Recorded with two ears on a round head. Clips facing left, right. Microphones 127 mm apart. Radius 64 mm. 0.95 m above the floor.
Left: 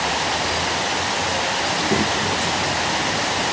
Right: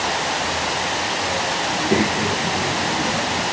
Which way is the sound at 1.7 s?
15° right (ahead or behind).